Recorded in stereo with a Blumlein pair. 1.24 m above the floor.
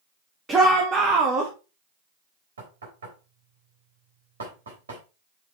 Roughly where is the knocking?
Right.